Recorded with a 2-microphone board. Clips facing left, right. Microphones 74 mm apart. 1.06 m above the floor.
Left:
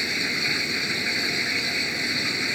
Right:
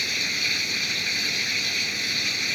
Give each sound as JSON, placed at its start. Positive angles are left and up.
{"t": 0.0, "sound": "running water", "side_deg": 25}